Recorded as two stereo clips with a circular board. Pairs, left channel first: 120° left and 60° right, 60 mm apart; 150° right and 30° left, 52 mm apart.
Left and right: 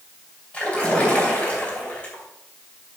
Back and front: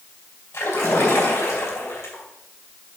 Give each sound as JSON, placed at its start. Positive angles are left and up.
{"t": 0.5, "sound": "a splash", "azimuth_deg": -175, "distance_m": 3.5}